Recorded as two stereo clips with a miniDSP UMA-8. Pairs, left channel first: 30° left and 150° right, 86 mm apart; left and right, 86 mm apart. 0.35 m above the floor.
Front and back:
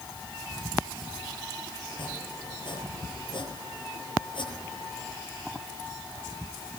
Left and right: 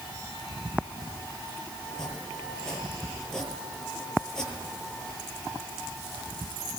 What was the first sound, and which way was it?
Chopping, 5° left.